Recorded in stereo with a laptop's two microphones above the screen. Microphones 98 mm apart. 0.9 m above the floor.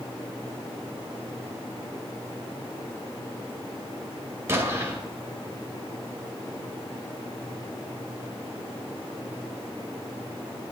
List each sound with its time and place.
4.5 s an explosion: 25° right (ahead or behind), 2 m